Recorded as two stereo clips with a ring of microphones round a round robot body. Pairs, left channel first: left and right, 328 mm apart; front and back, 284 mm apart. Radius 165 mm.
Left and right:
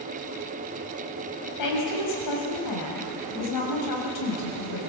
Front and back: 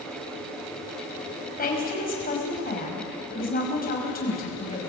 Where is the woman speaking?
60° left, 5.5 m.